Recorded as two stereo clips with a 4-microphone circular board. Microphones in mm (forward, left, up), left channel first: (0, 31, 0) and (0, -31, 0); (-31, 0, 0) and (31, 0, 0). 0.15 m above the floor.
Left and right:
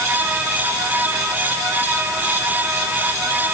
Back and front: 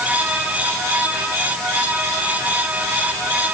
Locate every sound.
Only background noise.